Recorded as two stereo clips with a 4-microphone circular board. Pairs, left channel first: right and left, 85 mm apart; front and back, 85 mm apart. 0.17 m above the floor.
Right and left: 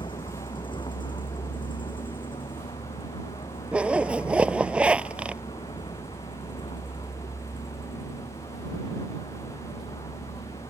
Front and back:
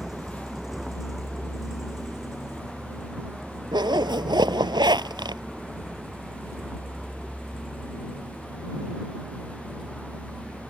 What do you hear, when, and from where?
0.0 s a vehicle: 95° right
3.7 s a zipper: 165° left